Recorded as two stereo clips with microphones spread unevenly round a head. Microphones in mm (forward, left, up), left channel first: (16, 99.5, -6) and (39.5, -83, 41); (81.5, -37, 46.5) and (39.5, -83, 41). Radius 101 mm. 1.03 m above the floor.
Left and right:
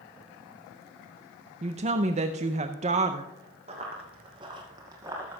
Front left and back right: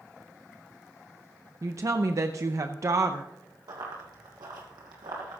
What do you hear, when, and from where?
1.6 s a woman speaking: 145° right, 0.5 m
3.7 s running footsteps: 135° right, 2.5 m; by 5.4 s 155° right, 2 m